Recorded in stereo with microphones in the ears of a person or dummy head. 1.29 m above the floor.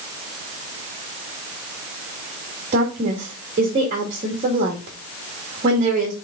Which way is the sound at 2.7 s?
35° right (ahead or behind).